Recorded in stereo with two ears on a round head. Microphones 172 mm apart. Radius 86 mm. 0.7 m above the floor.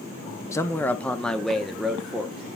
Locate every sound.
0.5 s a man speaking: 15° left (ahead or behind), 0.6 m; by 2.6 s 5° right (ahead or behind), 1.6 m